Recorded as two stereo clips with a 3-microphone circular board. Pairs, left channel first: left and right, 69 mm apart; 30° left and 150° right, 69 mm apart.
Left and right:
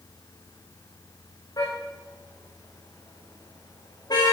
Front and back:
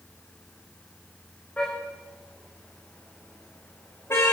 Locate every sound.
1.6 s a car horn: 105° left, 8.5 m; by 4.3 s 80° left, 6.5 m